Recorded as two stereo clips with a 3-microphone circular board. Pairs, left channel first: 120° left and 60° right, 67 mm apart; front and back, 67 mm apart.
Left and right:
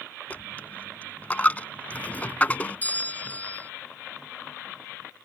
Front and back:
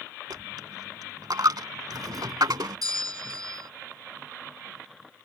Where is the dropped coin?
175° right.